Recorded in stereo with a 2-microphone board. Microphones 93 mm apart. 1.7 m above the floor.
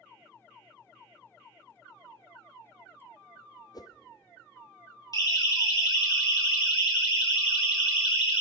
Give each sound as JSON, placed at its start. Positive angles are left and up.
{"t": 3.7, "sound": "a whoosh", "side_deg": 45, "distance_m": 0.6}
{"t": 5.1, "sound": "a siren", "side_deg": 45, "distance_m": 3.0}